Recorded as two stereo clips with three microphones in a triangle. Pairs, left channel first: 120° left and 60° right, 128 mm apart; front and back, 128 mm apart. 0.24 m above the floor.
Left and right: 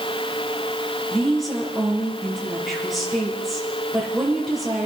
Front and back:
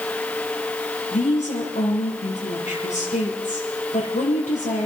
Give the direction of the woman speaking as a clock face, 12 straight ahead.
11 o'clock.